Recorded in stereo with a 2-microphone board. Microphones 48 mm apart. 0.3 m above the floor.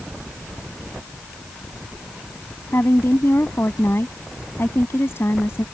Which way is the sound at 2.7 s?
55° left (ahead or behind).